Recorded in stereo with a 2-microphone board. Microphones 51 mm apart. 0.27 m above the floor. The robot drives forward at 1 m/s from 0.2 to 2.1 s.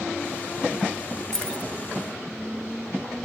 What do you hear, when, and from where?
1.3 s keys jangling: 10° left (ahead or behind)